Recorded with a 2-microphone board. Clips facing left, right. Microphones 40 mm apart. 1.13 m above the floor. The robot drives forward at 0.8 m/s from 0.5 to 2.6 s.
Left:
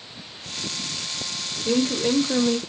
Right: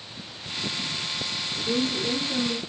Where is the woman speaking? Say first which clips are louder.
Left 5 dB; 40° left (ahead or behind), 2.5 m; by 2.6 s 60° left (ahead or behind), 1.8 m.